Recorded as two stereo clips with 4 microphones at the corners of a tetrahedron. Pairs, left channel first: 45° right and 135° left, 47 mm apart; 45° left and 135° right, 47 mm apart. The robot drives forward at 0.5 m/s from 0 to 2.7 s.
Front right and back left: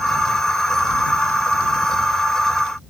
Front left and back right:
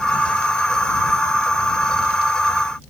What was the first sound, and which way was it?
Only background noise.